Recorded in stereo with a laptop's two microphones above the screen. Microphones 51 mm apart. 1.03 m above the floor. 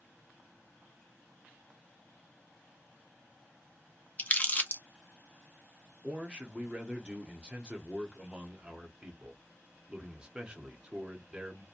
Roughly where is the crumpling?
Left.